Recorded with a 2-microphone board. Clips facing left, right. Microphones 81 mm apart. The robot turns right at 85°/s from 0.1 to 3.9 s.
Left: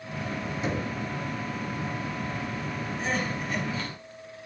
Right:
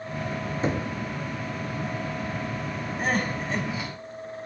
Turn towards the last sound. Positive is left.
turn(degrees=-5)